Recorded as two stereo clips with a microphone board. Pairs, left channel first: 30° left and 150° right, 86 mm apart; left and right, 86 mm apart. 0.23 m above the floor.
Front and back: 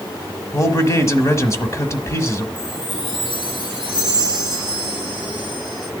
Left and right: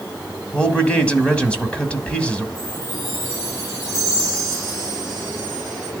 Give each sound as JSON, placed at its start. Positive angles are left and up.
{"t": 0.5, "sound": "a man speaking", "azimuth_deg": 25, "distance_m": 1.4}
{"t": 2.5, "sound": "a chime", "azimuth_deg": 40, "distance_m": 7.0}